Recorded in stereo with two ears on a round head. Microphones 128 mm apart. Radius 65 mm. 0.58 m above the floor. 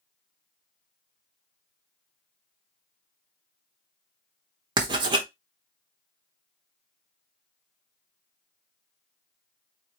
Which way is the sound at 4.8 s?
35° right (ahead or behind).